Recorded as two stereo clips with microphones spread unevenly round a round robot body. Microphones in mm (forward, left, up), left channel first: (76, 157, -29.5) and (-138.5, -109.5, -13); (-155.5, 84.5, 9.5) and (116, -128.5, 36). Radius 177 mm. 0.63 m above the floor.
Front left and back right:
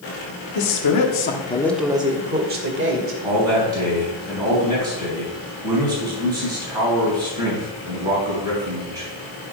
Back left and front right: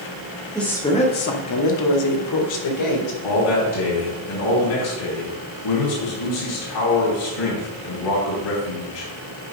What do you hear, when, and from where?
0.6 s a woman speaking: 55° left, 1.5 m; by 3.2 s straight behind, 2.5 m
3.2 s a man speaking: 150° left, 3.5 m